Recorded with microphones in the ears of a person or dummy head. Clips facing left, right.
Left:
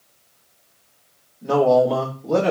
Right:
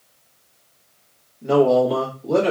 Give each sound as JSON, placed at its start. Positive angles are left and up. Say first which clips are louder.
{"t": 1.4, "sound": "a man speaking", "louder": "even", "side_deg": 0, "distance_m": 1.1}